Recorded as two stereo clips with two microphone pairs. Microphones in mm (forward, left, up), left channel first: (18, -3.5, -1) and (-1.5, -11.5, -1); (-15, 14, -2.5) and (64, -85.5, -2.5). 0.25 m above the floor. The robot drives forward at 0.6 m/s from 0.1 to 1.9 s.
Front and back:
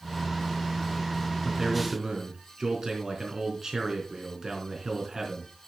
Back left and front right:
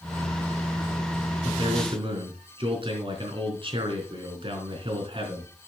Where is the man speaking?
90° right, 3.5 m; by 5.5 s 95° right, 3.5 m.